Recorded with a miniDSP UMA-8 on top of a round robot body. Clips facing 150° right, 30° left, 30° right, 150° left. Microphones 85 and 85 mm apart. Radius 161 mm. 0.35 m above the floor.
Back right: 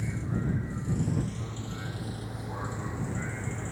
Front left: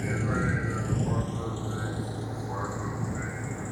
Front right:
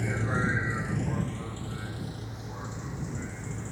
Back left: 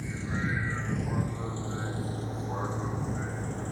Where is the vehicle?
Straight ahead; by 3.7 s 105° left.